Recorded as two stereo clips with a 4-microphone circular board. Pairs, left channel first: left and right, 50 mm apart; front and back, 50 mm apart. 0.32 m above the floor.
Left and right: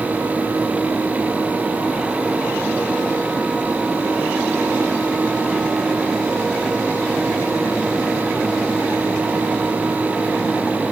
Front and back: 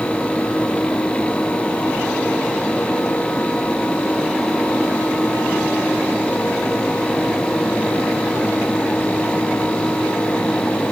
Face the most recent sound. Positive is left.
No sound to turn to.